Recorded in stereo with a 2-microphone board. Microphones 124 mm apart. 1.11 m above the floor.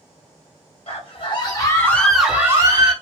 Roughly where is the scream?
Left.